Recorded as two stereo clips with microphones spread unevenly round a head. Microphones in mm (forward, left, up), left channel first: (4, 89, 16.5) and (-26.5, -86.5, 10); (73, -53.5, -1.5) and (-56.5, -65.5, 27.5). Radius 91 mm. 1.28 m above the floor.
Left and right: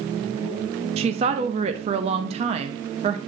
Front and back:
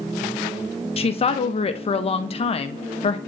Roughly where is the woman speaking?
Ahead right.